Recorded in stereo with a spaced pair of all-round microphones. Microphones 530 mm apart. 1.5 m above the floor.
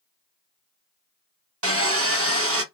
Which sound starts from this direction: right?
Sawing, at 1.6 s.